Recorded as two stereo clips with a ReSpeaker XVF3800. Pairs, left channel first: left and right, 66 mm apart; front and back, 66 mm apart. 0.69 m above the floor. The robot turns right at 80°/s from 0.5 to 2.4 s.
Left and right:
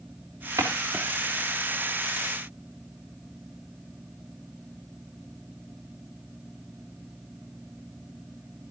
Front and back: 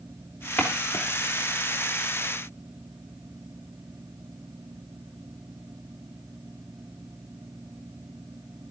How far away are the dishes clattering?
I don't hear dishes clattering.